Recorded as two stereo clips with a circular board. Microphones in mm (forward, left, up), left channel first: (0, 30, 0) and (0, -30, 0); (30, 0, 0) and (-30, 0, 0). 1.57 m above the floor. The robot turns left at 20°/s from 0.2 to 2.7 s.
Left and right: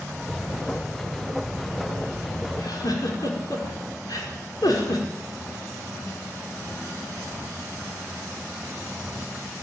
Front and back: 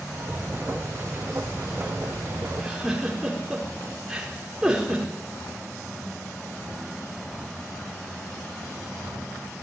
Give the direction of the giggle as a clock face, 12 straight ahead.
9 o'clock.